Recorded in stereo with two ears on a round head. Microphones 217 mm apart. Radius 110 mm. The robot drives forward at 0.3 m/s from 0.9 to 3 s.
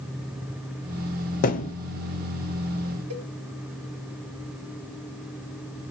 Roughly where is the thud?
Left.